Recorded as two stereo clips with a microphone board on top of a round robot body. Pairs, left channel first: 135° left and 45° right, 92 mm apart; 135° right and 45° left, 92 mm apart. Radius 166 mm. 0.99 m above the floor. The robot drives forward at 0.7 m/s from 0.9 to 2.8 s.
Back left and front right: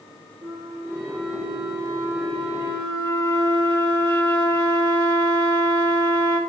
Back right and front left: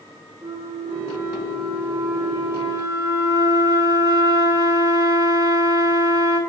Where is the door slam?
I don't hear a door slam.